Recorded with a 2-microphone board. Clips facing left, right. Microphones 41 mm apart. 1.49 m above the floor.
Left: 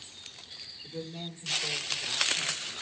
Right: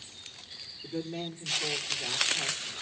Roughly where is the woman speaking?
Right.